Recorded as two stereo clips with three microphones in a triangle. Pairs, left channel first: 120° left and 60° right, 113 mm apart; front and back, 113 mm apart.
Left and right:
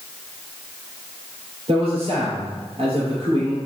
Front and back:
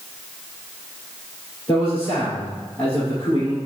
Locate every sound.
1.7 s a man speaking: 60° right, 2.5 m